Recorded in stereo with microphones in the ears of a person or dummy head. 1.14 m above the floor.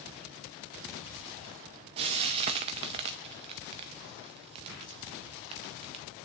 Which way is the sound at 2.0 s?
20° right (ahead or behind).